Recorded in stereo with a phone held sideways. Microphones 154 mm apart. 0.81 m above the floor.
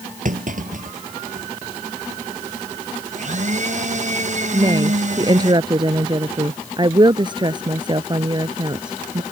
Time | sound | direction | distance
0.2 | a clunk | 55° right (ahead or behind) | ?
3.1 | a blender | 55° right (ahead or behind) | ?
4.5 | a woman speaking | 30° right (ahead or behind) | ?